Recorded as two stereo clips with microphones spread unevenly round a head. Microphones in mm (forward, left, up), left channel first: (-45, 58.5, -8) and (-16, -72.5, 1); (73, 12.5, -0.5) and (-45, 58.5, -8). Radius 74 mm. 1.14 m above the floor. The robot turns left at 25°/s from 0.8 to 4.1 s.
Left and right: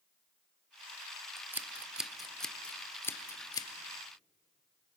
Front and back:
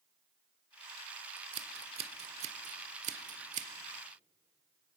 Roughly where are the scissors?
Behind right.